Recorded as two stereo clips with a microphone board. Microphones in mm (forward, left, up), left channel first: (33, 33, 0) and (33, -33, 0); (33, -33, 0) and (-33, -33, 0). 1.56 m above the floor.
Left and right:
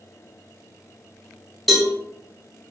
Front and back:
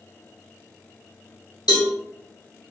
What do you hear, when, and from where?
1.7 s a cowbell: 5° right, 0.7 m